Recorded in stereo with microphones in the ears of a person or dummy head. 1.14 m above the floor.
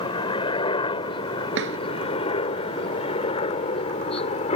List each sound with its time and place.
0.0 s a helicopter: 30° left (ahead or behind); by 4.5 s 35° left (ahead or behind)
1.6 s a drawer: 80° right